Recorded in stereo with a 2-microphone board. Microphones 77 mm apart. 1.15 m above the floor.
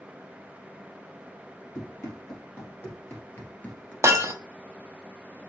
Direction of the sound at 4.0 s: 40° right (ahead or behind).